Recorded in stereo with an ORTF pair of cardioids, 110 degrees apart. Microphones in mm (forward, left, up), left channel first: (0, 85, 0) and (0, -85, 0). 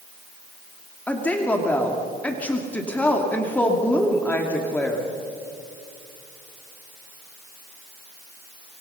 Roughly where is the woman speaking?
Ahead.